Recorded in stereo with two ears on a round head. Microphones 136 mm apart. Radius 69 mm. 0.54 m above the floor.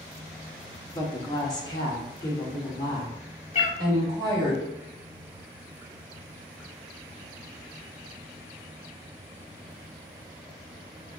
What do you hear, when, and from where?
0.9 s a woman speaking: 25° left (ahead or behind), 0.8 m
3.5 s a cat meowing: 50° left (ahead or behind), 0.6 m